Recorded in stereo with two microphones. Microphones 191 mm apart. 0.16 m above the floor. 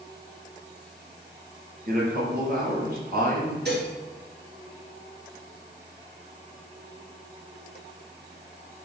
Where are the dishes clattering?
60° right (ahead or behind), 1.9 m.